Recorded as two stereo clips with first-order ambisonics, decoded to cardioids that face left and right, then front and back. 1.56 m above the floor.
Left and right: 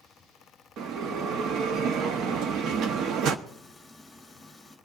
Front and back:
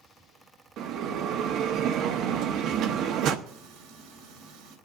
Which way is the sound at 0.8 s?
135° right.